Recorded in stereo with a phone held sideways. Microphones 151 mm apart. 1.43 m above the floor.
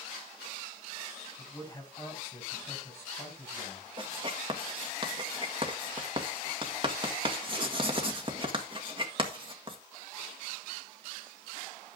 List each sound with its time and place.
1.4 s a man speaking: 15° left (ahead or behind), 8 m
4.0 s writing: 35° right (ahead or behind), 1.9 m